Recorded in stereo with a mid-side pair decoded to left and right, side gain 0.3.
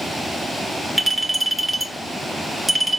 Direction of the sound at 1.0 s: 5° right.